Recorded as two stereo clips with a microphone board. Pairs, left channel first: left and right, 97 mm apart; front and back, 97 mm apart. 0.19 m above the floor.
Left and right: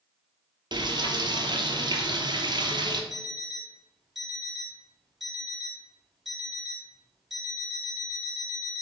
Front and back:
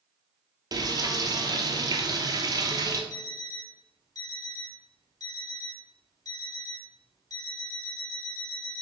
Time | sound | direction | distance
0.7 | frying | 130° right | 0.6 m
3.1 | an alarm clock | straight ahead | 1.0 m